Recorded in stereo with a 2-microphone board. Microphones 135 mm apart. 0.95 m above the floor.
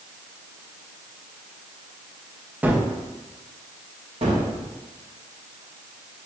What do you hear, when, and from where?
2.6 s a gunshot: 15° right (ahead or behind), 0.5 m
4.2 s a gunshot: 55° right (ahead or behind), 1.1 m